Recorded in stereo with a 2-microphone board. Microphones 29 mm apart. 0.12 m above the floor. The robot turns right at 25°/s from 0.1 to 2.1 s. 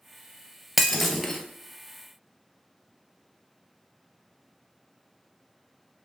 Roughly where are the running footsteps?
No running footsteps in this recording.